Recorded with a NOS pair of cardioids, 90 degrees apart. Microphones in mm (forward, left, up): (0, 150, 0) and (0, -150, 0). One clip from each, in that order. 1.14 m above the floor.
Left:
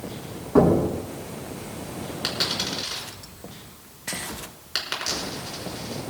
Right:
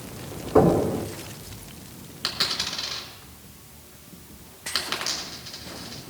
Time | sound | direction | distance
0.6 | knocking | 20° left | 6 m
2.2 | a dropped coin | 10° left | 5.5 m